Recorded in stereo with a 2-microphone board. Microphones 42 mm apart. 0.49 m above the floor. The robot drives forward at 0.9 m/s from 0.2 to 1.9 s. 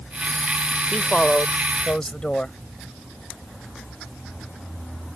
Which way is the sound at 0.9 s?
30° left (ahead or behind).